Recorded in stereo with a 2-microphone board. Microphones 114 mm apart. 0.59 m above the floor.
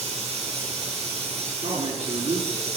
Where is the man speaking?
75° right (ahead or behind), 5.5 m.